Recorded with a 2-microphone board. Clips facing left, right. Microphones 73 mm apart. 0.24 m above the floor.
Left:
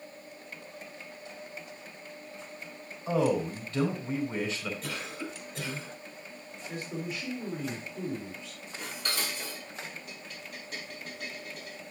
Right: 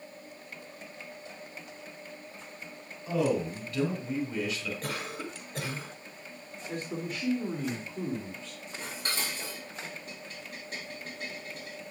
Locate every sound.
3.1 s a man speaking: 30° left (ahead or behind), 3 m
4.8 s a cough: 50° right (ahead or behind), 3.5 m
6.7 s a man speaking: 50° right (ahead or behind), 2.5 m
8.8 s dishes clattering: 40° right (ahead or behind), 4 m